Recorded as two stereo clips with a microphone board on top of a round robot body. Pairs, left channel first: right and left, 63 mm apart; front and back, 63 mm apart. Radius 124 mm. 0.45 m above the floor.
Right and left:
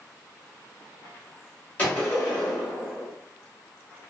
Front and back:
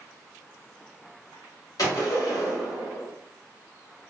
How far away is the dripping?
No dripping in this recording.